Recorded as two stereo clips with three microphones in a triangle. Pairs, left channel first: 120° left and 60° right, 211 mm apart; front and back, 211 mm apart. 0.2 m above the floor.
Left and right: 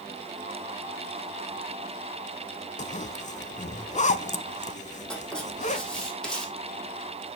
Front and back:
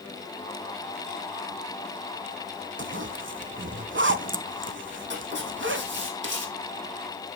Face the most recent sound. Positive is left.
turn(degrees=-155)